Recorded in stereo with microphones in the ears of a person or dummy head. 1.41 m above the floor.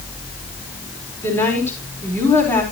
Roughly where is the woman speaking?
Centre.